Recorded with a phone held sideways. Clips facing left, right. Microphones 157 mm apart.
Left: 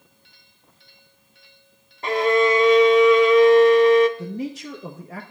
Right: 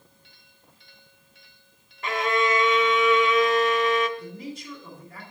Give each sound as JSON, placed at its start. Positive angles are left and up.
{"t": 2.0, "sound": "a violin", "side_deg": 30, "distance_m": 0.9}
{"t": 4.2, "sound": "a man speaking", "side_deg": 75, "distance_m": 0.9}